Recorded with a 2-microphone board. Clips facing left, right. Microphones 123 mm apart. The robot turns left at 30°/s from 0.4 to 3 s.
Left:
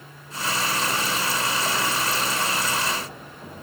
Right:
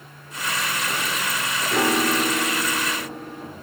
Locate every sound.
1.7 s a piano: 75° right; by 3.5 s 115° right